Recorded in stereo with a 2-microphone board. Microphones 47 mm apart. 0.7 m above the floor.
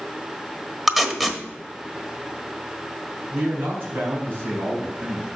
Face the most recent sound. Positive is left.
turn(degrees=-55)  # may be behind; listen again after turning